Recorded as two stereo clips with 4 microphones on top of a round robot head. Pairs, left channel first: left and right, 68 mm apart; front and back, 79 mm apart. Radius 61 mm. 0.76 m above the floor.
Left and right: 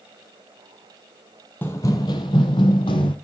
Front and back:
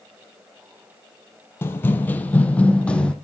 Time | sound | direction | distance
1.6 | running footsteps | 35° left | 0.8 m